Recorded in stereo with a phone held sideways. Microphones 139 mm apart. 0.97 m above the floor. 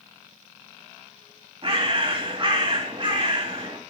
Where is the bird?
35° right (ahead or behind), 2 m.